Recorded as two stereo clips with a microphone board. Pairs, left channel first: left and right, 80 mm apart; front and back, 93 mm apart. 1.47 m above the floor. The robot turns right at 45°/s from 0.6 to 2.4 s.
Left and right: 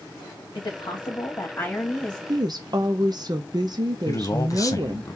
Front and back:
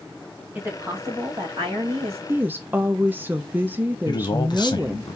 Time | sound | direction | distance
0.6 | a woman speaking | 105° left | 1.8 m
2.3 | a woman speaking | 115° right | 0.5 m
4.1 | a man speaking | 45° left | 0.9 m